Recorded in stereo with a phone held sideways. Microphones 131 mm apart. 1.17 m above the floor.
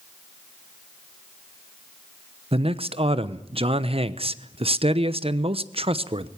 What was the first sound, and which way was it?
A man speaking, 45° right (ahead or behind).